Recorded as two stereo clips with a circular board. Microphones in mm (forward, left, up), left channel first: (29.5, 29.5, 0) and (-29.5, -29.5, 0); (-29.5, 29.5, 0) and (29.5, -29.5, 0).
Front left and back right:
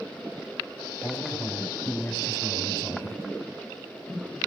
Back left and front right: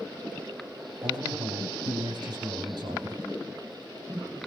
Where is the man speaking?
25° right, 6 m.